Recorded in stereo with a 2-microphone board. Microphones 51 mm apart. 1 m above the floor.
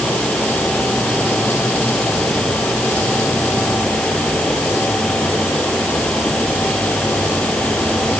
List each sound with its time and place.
Only background noise.